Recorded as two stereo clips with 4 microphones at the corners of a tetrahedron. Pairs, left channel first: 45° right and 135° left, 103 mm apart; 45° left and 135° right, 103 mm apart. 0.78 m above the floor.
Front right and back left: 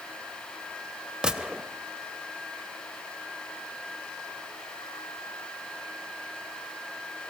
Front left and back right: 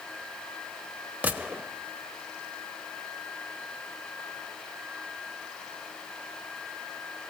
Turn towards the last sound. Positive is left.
turn(degrees=-165)